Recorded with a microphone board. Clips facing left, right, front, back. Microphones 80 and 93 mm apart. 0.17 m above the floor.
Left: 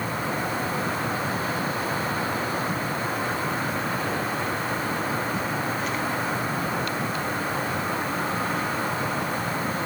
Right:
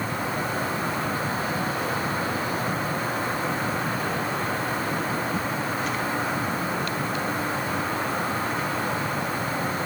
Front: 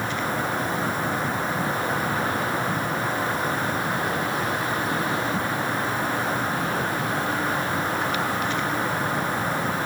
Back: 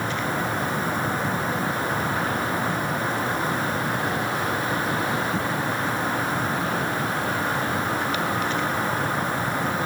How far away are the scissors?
No scissors in this recording.